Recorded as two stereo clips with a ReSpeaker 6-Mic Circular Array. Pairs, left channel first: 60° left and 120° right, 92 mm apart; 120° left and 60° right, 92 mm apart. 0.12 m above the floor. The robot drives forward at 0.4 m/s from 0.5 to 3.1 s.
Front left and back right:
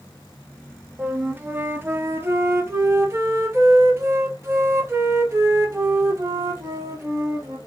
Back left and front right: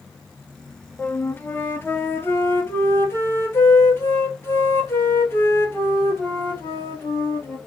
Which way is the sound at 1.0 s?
Straight behind.